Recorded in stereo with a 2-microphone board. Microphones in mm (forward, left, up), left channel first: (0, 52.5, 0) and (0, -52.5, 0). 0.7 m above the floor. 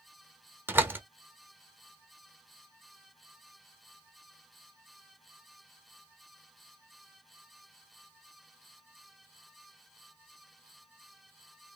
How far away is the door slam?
About 0.7 m.